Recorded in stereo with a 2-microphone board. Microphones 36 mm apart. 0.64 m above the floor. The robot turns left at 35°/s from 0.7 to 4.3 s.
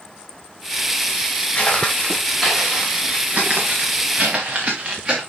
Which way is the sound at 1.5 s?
30° left (ahead or behind).